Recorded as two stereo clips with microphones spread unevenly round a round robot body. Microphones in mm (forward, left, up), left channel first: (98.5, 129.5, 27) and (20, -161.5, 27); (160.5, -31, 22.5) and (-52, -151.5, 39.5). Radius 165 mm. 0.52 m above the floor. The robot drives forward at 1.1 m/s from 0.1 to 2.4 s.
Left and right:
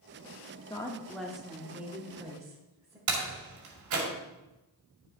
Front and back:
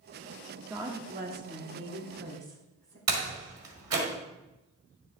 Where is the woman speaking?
125° left, 0.8 m; by 3.0 s 175° left, 2 m.